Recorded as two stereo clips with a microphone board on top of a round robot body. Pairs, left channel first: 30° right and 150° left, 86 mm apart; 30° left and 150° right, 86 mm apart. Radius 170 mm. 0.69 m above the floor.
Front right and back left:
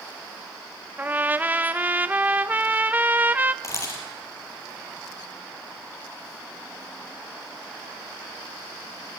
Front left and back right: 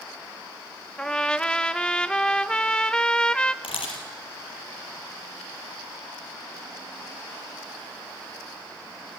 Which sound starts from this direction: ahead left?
A camera shutter, at 3.6 s.